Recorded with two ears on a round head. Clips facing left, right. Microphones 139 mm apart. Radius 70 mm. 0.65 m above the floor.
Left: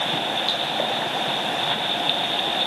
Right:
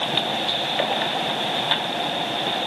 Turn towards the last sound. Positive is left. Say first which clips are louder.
# even
turn(degrees=60)  # may be behind; listen again after turning